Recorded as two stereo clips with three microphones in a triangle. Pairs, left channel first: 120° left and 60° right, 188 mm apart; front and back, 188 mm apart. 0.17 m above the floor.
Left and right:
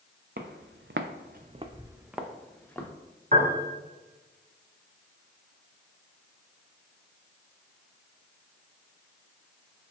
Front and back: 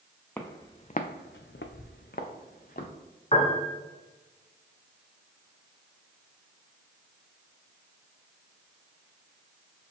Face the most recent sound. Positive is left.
turn(degrees=-40)